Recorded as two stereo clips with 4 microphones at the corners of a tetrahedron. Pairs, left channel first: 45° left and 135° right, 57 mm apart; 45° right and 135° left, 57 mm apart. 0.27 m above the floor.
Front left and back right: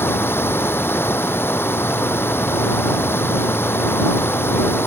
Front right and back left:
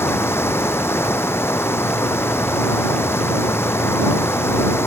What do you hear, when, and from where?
0.0 s running water: straight ahead